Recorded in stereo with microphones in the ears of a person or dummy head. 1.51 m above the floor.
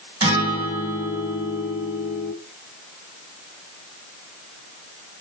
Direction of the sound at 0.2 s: 15° right (ahead or behind).